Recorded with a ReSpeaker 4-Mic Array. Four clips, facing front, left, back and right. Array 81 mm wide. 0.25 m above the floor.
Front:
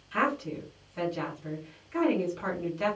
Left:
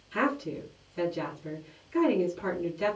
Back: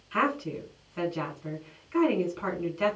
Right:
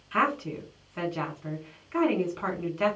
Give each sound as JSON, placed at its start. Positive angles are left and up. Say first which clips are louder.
{"t": 0.1, "sound": "a woman speaking", "louder": "right 2 dB, back 1 dB", "azimuth_deg": -100, "distance_m": 2.0}